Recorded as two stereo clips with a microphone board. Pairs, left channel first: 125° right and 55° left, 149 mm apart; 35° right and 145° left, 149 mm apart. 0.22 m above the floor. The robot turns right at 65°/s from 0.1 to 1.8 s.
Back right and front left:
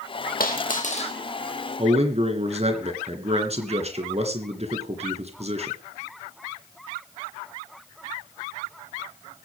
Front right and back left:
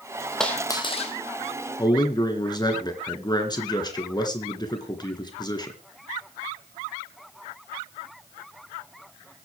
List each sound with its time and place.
0.4 s a dropped coin: 120° right, 3 m; by 1.1 s 75° right, 3 m
1.8 s a man speaking: 20° left, 3 m